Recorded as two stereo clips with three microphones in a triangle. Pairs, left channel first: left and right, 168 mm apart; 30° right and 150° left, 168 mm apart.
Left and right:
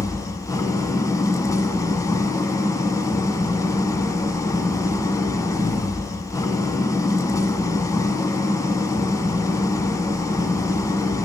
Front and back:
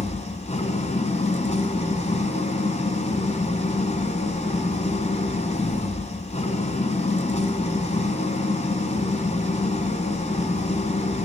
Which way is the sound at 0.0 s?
20° left.